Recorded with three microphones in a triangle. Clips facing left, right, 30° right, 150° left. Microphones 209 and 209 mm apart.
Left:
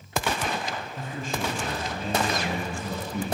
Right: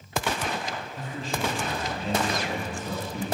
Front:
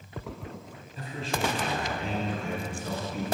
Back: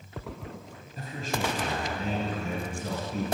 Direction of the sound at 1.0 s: 120° left.